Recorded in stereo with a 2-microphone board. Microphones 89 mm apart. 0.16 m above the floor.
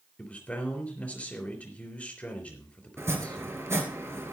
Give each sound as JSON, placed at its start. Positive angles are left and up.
{"t": 0.2, "sound": "a man speaking", "side_deg": 15, "distance_m": 3.5}
{"t": 3.0, "sound": "chopping", "side_deg": -30, "distance_m": 2.0}